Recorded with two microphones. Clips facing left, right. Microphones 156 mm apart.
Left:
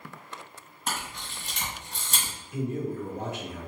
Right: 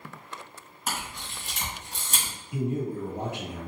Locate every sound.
0.9 s a camera shutter: 5° right (ahead or behind), 1.8 m
2.5 s a man speaking: 35° right (ahead or behind), 1.5 m